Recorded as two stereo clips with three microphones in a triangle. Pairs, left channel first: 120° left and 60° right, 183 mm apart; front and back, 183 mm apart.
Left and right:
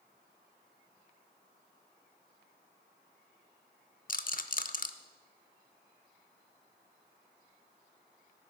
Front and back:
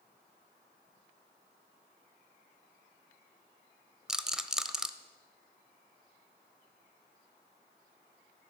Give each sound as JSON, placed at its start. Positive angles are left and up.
{"t": 4.1, "sound": "a rattle", "azimuth_deg": 95, "distance_m": 0.6}